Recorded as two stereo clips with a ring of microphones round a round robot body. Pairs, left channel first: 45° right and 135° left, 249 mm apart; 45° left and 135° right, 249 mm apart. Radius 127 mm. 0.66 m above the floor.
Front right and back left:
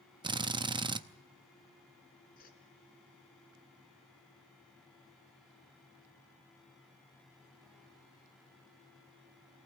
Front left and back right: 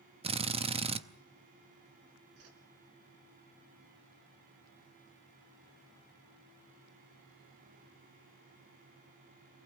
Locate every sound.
0.2 s a drill: 175° right, 0.7 m
2.4 s a whoosh: 105° right, 2.5 m